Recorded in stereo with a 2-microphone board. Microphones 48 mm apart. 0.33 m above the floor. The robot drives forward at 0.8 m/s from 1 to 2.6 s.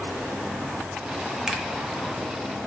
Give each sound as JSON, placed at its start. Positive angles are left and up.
{"t": 1.5, "sound": "a finger snap", "side_deg": -10, "distance_m": 0.7}